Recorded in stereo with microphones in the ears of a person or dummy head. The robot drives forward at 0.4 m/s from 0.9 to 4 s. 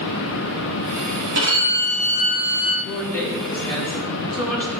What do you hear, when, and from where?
1.4 s a violin: 50° right (ahead or behind), 1.3 m; by 2.7 s 40° right (ahead or behind), 1.5 m
2.8 s a woman speaking: 10° left (ahead or behind), 1.4 m; by 4.8 s 5° left (ahead or behind), 1.8 m